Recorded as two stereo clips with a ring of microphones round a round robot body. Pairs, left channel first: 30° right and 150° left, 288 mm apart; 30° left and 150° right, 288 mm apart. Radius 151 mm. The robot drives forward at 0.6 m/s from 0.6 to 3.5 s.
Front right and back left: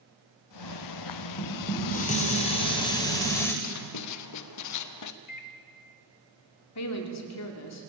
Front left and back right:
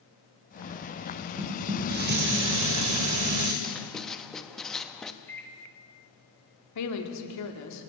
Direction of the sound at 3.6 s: 60° right.